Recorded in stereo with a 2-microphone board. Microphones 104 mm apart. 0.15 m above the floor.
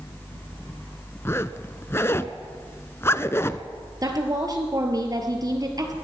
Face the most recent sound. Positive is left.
turn(degrees=-40)  # may be behind; listen again after turning